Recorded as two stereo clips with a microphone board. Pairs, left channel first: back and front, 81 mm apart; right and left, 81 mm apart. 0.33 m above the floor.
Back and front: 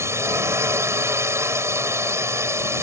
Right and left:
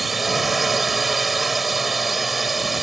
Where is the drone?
5° left.